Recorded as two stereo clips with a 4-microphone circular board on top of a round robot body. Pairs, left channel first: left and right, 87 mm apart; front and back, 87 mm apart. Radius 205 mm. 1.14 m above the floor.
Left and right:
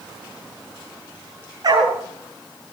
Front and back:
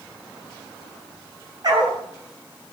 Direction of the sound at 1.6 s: 135° right.